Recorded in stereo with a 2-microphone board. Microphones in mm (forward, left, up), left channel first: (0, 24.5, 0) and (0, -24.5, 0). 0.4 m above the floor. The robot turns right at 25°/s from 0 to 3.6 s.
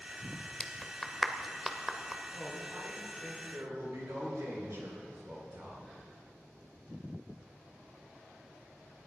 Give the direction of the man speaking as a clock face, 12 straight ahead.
5 o'clock.